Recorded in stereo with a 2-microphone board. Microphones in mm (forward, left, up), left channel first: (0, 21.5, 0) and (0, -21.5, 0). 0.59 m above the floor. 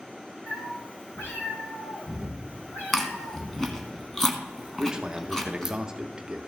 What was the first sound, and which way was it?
A cat meowing, 65° left (ahead or behind).